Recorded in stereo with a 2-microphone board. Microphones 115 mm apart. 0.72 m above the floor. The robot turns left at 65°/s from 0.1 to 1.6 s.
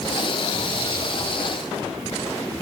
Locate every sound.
Only background noise.